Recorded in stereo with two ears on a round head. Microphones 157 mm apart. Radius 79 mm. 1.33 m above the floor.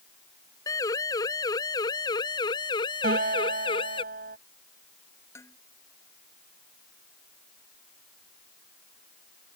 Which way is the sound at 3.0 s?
50° right (ahead or behind).